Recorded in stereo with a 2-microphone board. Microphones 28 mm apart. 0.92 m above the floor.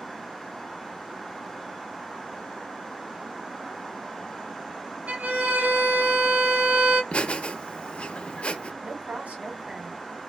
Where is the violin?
65° right (ahead or behind), 1.6 m.